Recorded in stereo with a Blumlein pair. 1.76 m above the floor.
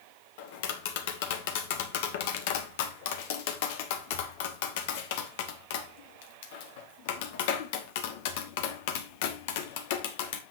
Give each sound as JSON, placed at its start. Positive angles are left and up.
{"t": 0.4, "sound": "tapping", "azimuth_deg": 50, "distance_m": 1.3}